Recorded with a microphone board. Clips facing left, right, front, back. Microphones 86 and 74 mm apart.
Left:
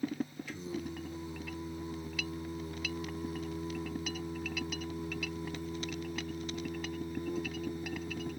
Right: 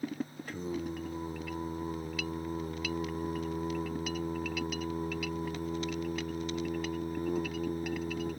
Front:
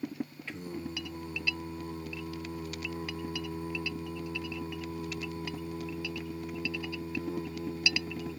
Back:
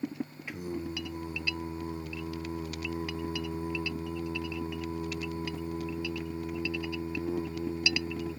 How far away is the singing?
About 0.6 m.